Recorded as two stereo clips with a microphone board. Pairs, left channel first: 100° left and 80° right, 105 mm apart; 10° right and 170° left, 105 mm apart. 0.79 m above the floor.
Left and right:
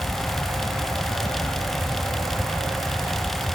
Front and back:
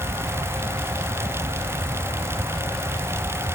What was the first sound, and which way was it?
Only background noise.